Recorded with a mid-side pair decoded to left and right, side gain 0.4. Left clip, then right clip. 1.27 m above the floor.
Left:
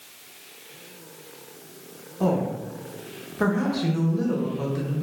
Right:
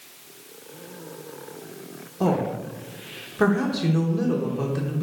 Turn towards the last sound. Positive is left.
turn(degrees=-20)